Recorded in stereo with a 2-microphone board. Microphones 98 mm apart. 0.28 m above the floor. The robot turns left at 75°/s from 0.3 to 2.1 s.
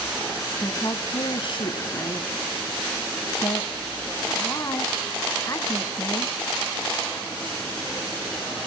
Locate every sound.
0.6 s a woman speaking: 25° left (ahead or behind), 1.8 m; by 6.3 s 30° left (ahead or behind), 1.8 m